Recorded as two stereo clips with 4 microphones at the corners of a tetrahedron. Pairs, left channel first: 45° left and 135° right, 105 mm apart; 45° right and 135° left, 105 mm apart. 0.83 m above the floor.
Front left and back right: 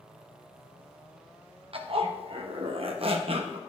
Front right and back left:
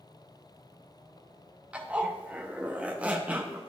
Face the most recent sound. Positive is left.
turn(degrees=-150)